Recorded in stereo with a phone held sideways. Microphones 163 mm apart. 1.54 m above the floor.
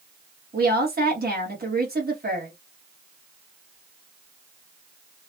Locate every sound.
0.5 s a woman speaking: 70° right (ahead or behind), 1.8 m